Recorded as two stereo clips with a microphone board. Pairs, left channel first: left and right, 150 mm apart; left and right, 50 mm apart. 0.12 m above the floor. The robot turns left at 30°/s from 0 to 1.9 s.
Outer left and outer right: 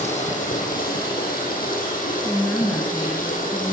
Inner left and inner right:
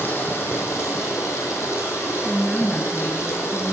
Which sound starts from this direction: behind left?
Running water, at 0.0 s.